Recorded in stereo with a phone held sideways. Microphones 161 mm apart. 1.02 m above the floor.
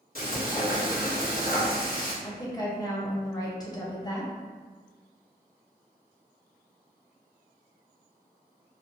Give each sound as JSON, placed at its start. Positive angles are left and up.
{"t": 0.1, "sound": "frying", "side_deg": 65, "distance_m": 1.8}
{"t": 2.2, "sound": "a woman speaking", "side_deg": 25, "distance_m": 0.8}